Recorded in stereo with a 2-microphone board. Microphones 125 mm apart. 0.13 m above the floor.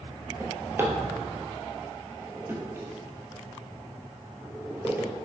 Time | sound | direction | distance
0.4 | a drawer | 20° right (ahead or behind) | 1.2 m